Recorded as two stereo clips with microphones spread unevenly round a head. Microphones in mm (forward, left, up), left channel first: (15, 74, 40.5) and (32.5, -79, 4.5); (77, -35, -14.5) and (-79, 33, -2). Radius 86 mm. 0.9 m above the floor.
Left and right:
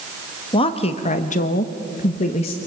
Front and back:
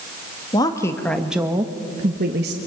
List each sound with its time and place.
0.5 s a woman speaking: 35° left, 1.8 m; by 2.6 s 155° left, 1.5 m